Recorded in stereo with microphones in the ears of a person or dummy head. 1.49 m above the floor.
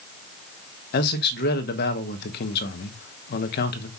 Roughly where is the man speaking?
Left.